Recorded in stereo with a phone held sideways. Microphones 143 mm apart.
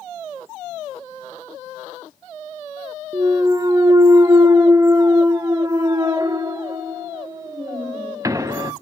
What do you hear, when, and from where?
3.1 s a clunk: 25° right (ahead or behind), 0.6 m